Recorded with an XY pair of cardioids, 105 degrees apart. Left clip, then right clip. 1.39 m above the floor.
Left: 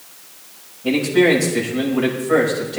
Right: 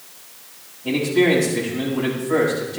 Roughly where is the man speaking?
Ahead left.